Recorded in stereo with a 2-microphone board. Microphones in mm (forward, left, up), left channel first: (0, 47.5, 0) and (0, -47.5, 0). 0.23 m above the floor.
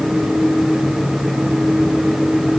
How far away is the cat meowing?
I don't hear a cat meowing.